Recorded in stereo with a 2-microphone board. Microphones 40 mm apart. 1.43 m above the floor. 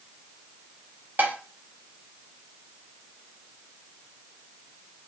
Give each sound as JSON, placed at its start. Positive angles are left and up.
{"t": 1.2, "sound": "dishes clattering", "side_deg": -45, "distance_m": 0.7}